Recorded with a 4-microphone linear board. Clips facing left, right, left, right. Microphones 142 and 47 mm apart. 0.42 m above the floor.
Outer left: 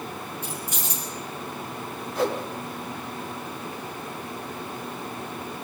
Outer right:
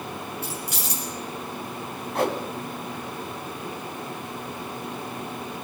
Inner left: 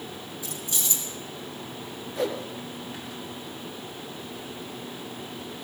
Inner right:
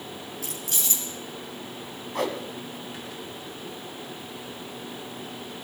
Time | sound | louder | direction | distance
0.4 | keys jangling | outer right 1 dB, even | 75° right (ahead or behind) | 5.5 m
2.1 | a whoosh | outer right 1 dB, even | 75° right (ahead or behind) | 2 m